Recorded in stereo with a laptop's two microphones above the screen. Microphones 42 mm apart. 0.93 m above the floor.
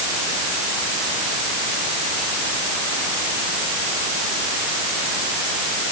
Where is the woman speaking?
I don't hear a woman speaking.